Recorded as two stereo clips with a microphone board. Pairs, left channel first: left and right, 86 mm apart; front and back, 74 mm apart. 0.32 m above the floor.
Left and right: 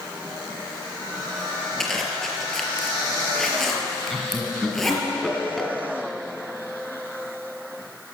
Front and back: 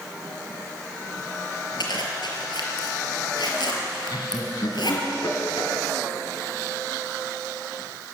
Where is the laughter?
5° left, 3 m.